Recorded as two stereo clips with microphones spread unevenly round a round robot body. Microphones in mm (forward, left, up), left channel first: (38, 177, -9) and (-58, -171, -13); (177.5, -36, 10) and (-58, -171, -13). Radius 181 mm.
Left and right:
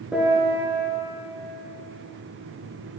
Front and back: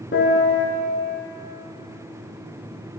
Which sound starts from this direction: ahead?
A piano, at 0.1 s.